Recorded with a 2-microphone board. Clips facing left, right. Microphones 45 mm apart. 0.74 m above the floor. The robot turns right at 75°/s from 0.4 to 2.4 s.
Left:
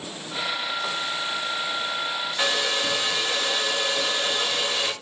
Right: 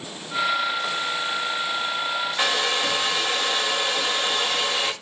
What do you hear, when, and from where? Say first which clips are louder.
2.4 s a hair dryer: right 1 dB; 20° right (ahead or behind), 1.0 m